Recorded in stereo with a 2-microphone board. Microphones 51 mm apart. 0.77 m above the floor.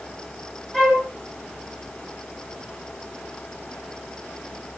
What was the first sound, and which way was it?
A flute, 10° right (ahead or behind).